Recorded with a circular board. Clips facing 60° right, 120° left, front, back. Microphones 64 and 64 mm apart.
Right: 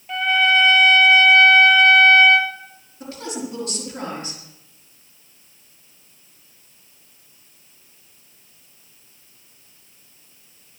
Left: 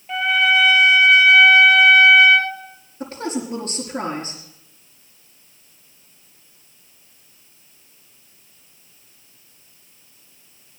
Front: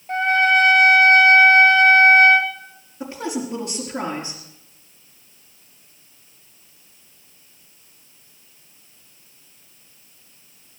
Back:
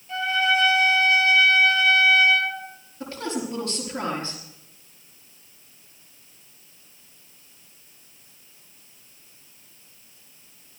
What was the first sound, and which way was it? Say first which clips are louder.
A trumpet: even, front 6 dB; 35° left.